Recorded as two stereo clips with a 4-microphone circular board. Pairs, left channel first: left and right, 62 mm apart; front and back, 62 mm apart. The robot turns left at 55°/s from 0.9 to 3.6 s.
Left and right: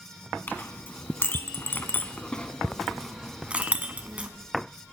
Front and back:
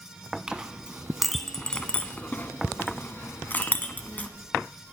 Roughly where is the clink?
Behind left.